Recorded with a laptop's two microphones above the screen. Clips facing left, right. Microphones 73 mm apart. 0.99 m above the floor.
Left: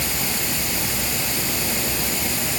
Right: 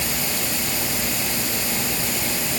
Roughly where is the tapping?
No tapping in this recording.